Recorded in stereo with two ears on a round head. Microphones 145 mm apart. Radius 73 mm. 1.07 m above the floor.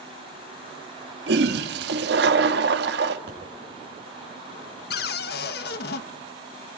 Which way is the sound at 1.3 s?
75° right (ahead or behind).